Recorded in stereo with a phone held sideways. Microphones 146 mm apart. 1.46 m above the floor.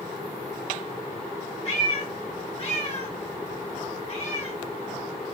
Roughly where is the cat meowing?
Left.